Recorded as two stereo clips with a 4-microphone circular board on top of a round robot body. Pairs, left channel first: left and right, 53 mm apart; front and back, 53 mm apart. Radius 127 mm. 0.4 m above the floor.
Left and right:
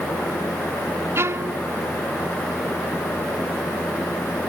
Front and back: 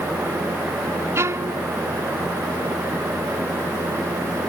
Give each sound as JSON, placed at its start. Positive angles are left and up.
{"t": 1.1, "sound": "a violin", "azimuth_deg": -135}